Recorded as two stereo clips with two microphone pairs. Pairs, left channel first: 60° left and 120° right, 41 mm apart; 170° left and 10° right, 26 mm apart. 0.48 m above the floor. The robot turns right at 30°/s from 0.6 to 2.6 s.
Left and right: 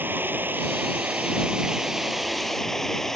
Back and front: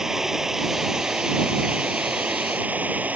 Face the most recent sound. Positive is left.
turn(degrees=-25)